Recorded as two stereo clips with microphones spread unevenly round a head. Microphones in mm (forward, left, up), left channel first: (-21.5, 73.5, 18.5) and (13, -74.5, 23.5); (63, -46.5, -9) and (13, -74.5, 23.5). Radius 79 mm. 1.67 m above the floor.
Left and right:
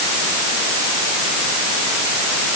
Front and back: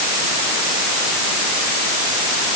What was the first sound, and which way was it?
Only background noise.